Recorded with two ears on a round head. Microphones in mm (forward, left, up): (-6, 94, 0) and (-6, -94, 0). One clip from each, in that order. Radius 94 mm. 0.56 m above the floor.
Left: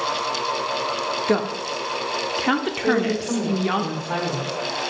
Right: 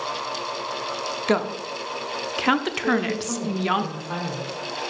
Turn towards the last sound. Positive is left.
turn(degrees=10)  # may be behind; listen again after turning